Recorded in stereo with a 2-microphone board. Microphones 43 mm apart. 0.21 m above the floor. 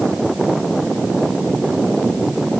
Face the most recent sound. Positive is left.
No sound to turn to.